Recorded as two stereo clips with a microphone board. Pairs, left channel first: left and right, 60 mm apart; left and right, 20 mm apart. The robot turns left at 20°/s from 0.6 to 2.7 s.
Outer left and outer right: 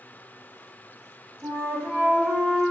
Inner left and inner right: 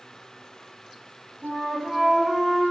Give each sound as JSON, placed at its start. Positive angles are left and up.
{"t": 1.4, "sound": "a flute", "side_deg": -25, "distance_m": 1.1}